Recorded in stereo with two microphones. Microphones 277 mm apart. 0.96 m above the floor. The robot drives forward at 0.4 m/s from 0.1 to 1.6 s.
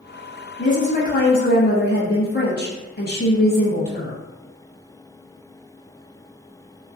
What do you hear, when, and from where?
0.6 s a woman speaking: 30° left (ahead or behind), 0.8 m; by 4.2 s 50° left (ahead or behind), 0.5 m